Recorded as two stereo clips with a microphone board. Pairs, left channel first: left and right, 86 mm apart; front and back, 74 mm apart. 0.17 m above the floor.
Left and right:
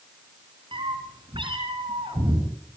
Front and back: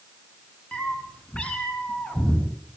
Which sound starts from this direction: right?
A cat meowing, at 0.7 s.